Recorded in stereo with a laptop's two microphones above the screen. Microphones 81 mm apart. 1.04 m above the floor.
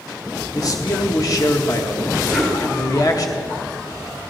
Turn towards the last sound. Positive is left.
turn(degrees=5)  # may be behind; listen again after turning